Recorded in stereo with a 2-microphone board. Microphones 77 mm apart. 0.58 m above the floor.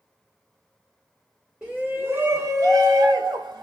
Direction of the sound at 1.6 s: 15° right (ahead or behind).